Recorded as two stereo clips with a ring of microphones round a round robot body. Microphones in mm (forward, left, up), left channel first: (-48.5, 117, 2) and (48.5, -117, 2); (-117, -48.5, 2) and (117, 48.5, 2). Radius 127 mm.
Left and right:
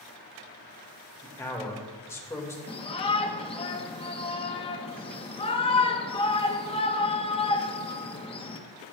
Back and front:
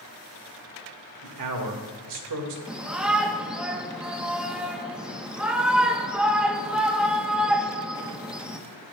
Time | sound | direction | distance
1.2 | a man speaking | 35° left | 1.9 m
2.7 | a shout | 105° left | 0.8 m